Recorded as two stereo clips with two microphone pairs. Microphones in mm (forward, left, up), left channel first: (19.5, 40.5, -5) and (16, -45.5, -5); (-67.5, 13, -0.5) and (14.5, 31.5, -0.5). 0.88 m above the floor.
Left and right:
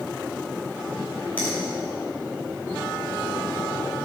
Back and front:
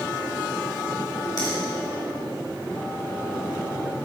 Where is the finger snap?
160° left, 3 m.